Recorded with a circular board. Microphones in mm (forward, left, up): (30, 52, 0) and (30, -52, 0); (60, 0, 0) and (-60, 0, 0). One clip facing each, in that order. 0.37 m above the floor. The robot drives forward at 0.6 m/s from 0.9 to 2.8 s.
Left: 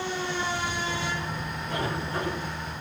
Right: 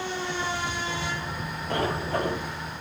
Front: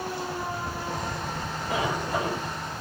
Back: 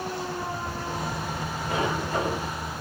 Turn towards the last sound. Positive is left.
turn(degrees=-90)